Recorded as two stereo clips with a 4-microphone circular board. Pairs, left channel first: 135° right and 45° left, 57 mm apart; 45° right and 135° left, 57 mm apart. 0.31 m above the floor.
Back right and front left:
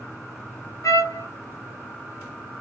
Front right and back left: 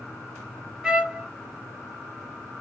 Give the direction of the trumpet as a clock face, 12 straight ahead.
5 o'clock.